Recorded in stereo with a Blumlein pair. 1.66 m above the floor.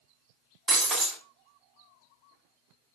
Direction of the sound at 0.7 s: 10° right.